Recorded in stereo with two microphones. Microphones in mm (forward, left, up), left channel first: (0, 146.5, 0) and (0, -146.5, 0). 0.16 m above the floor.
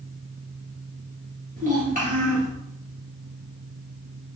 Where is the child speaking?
25° right (ahead or behind), 1.3 m.